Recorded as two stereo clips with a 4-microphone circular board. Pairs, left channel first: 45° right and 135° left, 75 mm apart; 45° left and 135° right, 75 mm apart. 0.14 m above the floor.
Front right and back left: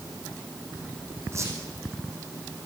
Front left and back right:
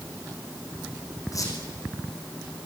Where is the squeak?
85° left, 6 m.